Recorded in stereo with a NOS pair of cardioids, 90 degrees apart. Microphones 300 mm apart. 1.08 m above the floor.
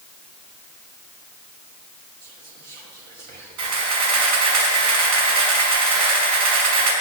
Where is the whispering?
60° right, 1.8 m.